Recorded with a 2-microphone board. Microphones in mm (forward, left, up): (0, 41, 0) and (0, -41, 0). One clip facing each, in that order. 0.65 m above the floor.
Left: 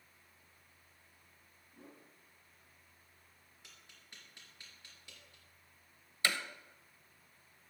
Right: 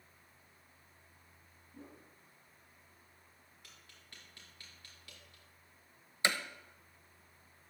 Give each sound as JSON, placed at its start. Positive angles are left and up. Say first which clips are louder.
{"t": 1.7, "sound": "a whoosh", "louder": "right 3 dB", "side_deg": -30, "distance_m": 6.0}
{"t": 3.6, "sound": "tapping", "louder": "even", "side_deg": 20, "distance_m": 3.5}
{"t": 6.2, "sound": "hammering", "louder": "right 2 dB", "side_deg": -20, "distance_m": 0.8}